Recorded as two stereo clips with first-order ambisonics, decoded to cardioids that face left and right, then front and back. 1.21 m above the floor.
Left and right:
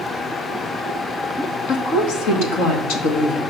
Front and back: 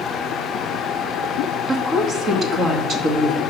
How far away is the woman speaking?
About 1.8 m.